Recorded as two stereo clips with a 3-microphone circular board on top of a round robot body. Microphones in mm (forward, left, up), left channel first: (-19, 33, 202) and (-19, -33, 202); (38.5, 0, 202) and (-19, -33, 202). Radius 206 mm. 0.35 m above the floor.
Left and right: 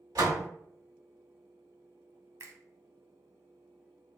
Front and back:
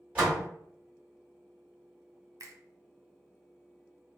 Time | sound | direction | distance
0.1 | a door slam | 80° right | 2.0 m
2.4 | a finger snap | 125° right | 1.2 m